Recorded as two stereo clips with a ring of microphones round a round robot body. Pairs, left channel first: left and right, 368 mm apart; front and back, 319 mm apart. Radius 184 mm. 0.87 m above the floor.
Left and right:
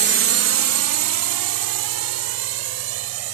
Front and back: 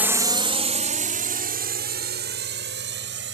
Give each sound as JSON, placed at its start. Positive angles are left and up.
{"t": 0.0, "sound": "a drone", "azimuth_deg": -100}